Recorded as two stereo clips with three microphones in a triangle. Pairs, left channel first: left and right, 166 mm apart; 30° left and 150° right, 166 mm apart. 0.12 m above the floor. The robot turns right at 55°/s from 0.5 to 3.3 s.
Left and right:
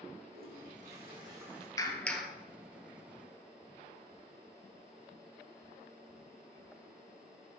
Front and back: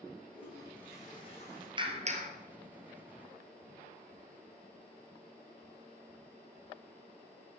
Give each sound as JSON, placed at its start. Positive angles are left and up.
{"t": 0.3, "sound": "a toilet flushing", "azimuth_deg": -65, "distance_m": 7.0}
{"t": 1.8, "sound": "a clap", "azimuth_deg": 155, "distance_m": 2.0}